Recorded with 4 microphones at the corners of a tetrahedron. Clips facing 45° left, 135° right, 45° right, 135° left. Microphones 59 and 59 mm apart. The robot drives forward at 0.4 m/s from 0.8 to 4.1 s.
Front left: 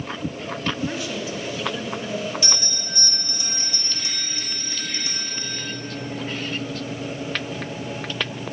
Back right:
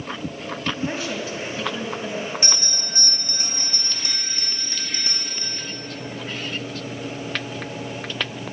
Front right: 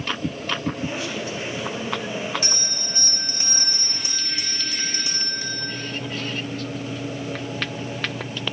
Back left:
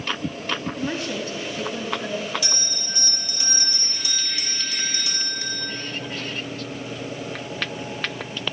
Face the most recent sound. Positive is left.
turn(degrees=-105)